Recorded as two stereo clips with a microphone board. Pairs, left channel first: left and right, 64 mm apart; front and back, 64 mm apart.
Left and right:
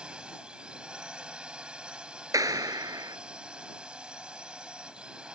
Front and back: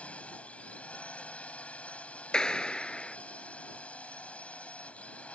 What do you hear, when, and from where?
0.0 s a drone: 40° right
2.3 s a clap: 80° right